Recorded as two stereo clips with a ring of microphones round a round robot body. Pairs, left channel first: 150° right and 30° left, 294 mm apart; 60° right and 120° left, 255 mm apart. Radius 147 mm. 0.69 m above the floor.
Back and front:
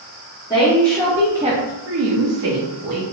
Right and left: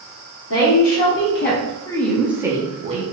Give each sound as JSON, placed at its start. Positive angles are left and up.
{"t": 0.5, "sound": "a woman speaking", "azimuth_deg": -75, "distance_m": 0.9}